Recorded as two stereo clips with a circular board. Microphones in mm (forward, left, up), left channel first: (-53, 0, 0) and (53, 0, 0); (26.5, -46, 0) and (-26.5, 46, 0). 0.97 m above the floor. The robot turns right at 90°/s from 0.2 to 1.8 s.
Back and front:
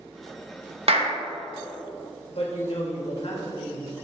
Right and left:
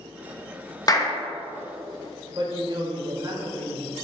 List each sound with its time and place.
0.9 s a clap: 10° right, 1.0 m; by 1.2 s 20° left, 1.0 m
2.3 s a woman speaking: 165° left, 1.5 m